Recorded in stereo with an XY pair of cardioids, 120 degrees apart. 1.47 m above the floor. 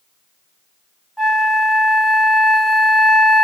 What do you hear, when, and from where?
1.2 s a flute: 10° right, 1.3 m